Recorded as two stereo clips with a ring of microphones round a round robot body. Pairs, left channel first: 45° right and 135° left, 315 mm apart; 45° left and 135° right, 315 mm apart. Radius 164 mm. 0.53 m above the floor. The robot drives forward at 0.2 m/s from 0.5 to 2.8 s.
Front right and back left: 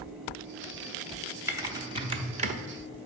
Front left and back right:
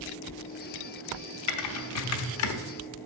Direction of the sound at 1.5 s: 55° left.